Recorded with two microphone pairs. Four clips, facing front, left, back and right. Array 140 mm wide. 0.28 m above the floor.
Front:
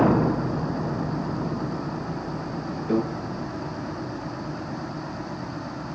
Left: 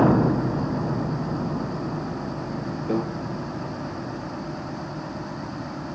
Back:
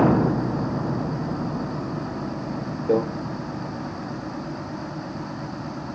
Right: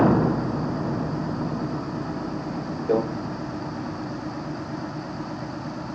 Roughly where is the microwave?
Behind right.